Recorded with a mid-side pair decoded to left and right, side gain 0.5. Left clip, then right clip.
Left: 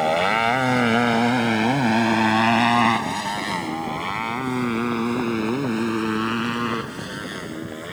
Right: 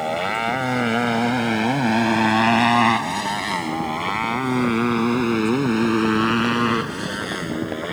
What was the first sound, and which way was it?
A motorcycle, 30° left.